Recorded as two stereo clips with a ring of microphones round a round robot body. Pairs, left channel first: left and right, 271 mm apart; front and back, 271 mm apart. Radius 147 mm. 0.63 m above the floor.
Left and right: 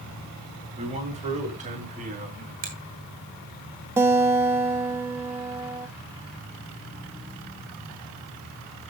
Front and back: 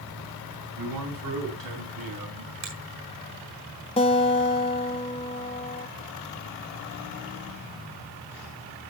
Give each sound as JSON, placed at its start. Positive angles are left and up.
{"t": 0.8, "sound": "a man speaking", "azimuth_deg": -155, "distance_m": 8.0}
{"t": 2.6, "sound": "a finger snap", "azimuth_deg": -150, "distance_m": 4.5}
{"t": 4.0, "sound": "a guitar", "azimuth_deg": -25, "distance_m": 1.1}